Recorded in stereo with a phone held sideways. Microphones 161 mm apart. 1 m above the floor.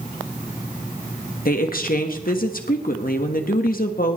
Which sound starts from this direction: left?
A woman speaking, at 1.4 s.